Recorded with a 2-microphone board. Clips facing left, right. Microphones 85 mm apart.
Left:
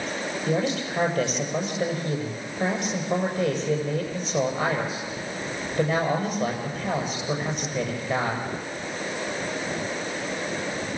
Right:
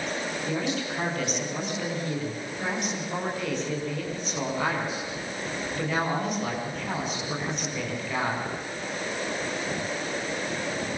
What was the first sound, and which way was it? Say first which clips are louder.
A man speaking: left 5 dB; 40° left (ahead or behind).